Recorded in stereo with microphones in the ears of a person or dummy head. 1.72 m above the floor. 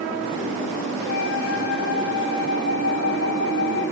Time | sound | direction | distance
1.1 | a flute | 70° left (ahead or behind) | 10 m